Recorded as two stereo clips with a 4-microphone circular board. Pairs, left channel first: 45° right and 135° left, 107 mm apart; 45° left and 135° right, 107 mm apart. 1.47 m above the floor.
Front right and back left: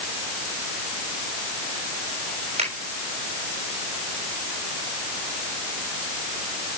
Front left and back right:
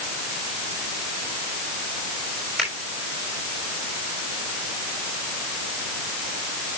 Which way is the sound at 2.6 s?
135° left.